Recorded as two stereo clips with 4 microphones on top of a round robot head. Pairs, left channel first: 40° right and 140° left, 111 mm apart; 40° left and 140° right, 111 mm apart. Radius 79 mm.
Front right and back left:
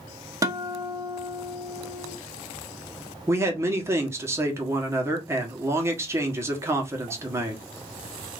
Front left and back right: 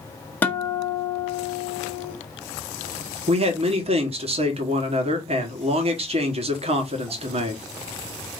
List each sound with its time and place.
0.4 s a guitar: 105° left, 1.1 m
3.3 s a man speaking: 155° right, 1.3 m